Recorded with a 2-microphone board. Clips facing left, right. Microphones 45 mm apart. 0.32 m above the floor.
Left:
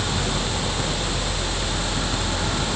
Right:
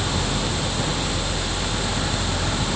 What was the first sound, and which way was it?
Only background noise.